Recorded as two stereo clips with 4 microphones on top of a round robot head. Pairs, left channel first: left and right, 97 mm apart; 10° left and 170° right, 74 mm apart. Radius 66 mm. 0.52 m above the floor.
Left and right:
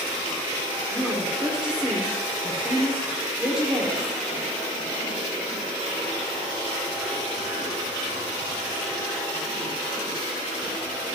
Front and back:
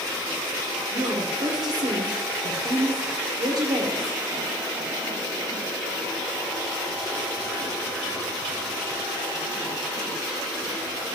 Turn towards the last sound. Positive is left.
turn(degrees=-170)